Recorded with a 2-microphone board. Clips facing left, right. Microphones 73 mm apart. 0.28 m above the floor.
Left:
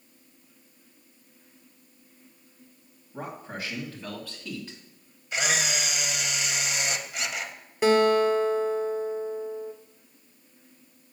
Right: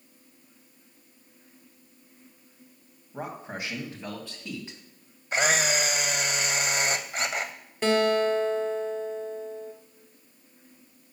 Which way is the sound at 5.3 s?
40° right (ahead or behind).